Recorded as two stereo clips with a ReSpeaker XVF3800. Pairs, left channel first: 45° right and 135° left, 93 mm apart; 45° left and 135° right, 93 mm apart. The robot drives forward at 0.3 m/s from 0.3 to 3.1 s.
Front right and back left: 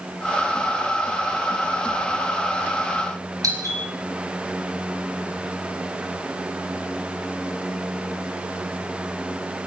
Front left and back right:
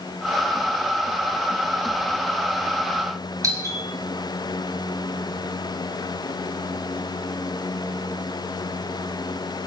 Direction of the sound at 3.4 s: Straight behind.